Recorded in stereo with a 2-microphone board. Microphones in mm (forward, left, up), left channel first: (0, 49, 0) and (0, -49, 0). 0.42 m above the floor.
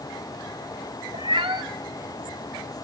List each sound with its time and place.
1.1 s a cat meowing: 50° right (ahead or behind), 1.2 m